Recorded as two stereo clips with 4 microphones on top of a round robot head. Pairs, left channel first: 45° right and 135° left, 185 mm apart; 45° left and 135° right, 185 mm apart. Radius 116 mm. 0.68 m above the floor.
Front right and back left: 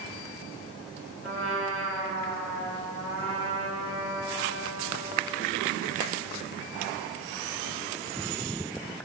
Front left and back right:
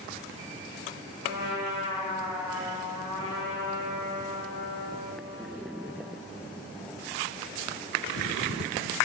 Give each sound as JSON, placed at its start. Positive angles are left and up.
{"t": 1.2, "sound": "a trumpet", "azimuth_deg": -65, "distance_m": 4.0}